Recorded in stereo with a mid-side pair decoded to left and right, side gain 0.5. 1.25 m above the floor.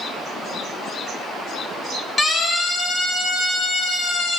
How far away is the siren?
About 6.5 m.